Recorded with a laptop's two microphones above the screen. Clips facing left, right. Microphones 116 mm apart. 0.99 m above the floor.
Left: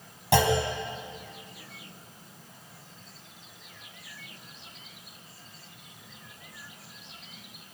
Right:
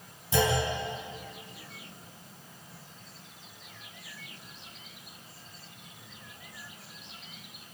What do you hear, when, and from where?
0.3 s a clunk: 90° left, 4.5 m